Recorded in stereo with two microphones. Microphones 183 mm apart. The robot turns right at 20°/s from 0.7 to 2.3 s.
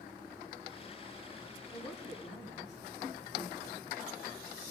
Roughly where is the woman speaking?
Centre.